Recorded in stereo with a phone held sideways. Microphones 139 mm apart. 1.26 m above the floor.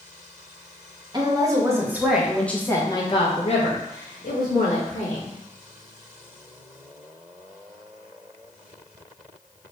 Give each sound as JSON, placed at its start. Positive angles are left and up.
{"t": 1.1, "sound": "a woman speaking", "side_deg": -30, "distance_m": 1.2}